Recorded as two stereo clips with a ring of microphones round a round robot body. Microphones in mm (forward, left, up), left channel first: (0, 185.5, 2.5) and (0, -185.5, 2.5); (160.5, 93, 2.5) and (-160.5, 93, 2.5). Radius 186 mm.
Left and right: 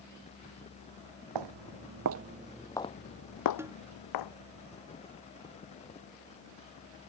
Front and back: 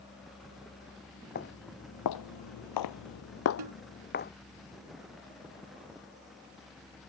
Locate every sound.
1.4 s footsteps: 65° right; by 4.3 s 60° left
3.6 s a snare drum: 175° right